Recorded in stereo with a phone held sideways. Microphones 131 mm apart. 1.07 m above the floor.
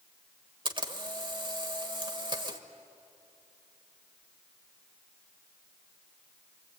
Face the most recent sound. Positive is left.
turn(degrees=-40)  # may be behind; listen again after turning